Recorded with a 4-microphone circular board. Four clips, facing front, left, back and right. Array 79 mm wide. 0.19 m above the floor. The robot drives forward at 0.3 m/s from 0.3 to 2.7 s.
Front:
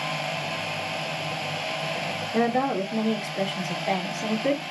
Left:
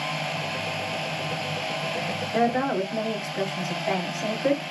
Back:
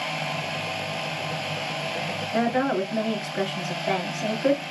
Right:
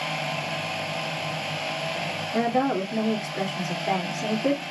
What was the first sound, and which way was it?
A woman speaking, straight behind.